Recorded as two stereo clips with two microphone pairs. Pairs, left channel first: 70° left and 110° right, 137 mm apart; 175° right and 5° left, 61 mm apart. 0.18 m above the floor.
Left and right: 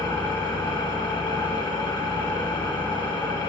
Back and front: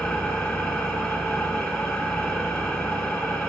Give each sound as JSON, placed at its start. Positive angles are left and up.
{"t": 0.0, "sound": "an engine running", "azimuth_deg": 110, "distance_m": 1.6}